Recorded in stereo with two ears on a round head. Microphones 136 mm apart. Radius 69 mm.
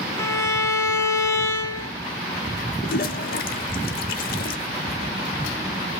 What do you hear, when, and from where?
0.2 s a violin: 20° left (ahead or behind), 1.4 m
2.8 s a toilet flushing: 70° left (ahead or behind), 0.9 m